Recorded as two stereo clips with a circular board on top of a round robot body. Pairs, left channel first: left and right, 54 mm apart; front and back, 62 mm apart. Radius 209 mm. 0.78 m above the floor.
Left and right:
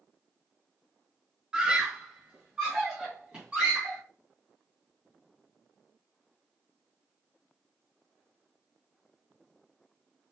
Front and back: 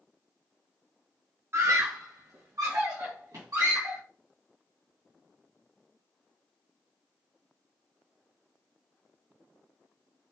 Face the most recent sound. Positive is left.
turn(degrees=-160)